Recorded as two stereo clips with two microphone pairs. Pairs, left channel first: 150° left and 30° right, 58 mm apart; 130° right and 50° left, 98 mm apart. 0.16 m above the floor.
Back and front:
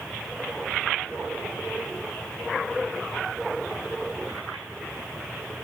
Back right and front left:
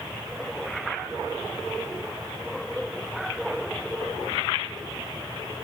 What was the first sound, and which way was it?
Only background noise.